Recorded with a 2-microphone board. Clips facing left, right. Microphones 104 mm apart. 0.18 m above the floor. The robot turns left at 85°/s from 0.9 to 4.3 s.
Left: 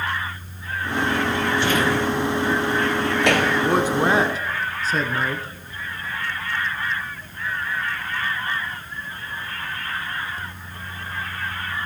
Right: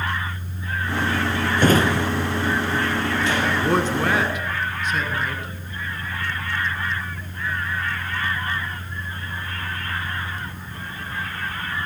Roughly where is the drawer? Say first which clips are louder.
Right 5 dB; right.